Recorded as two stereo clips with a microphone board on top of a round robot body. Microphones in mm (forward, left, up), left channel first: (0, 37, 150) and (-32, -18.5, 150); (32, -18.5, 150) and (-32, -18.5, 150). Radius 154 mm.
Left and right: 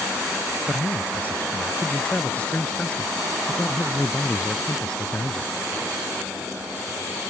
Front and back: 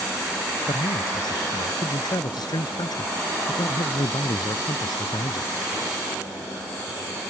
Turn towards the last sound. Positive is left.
turn(degrees=-20)